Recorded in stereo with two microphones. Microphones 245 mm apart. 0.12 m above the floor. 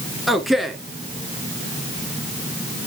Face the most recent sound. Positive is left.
turn(degrees=0)  # may be behind; listen again after turning